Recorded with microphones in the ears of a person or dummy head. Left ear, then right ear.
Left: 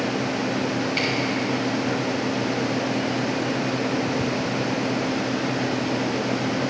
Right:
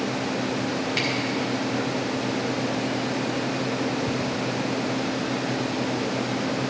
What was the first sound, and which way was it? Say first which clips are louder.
A camera shutter: left 1 dB; 10° right (ahead or behind).